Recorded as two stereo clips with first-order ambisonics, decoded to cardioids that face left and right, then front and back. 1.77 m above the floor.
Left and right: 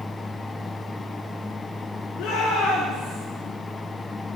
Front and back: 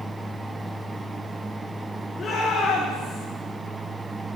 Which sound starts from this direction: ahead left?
A shout, at 2.2 s.